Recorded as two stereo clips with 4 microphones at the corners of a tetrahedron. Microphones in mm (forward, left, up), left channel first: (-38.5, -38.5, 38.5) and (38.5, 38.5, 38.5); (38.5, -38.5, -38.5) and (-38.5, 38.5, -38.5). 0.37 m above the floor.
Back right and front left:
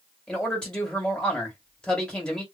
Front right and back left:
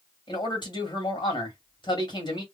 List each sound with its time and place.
0.3 s a man speaking: 55° right, 1.9 m